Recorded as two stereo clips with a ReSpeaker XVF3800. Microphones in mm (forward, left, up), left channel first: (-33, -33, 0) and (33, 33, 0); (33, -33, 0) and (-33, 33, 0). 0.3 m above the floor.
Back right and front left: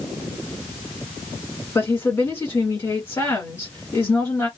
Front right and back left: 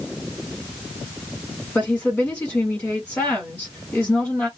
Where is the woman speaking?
95° right, 1.6 m.